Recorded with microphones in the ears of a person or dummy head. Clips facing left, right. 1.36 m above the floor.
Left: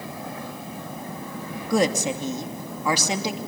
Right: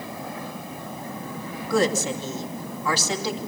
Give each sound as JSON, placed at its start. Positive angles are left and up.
{"t": 1.7, "sound": "a woman speaking", "side_deg": 15, "distance_m": 2.5}